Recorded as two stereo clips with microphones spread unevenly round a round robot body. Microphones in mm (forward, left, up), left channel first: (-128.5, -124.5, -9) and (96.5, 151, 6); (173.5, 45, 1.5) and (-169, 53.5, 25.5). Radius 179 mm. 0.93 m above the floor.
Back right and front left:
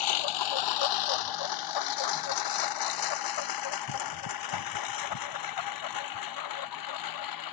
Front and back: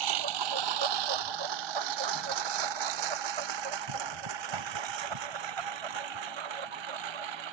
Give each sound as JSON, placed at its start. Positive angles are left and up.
{"t": 0.0, "sound": "a lawn mower", "azimuth_deg": -150}